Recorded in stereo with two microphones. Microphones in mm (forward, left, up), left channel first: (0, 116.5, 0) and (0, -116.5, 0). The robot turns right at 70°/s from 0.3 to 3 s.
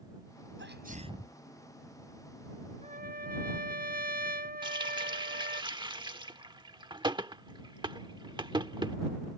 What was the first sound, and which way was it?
A sneeze, 60° right.